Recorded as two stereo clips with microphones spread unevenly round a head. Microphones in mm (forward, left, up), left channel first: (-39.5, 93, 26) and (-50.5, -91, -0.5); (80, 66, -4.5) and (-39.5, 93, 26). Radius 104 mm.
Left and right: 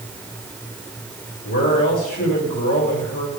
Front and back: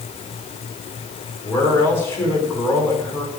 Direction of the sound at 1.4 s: 60° left.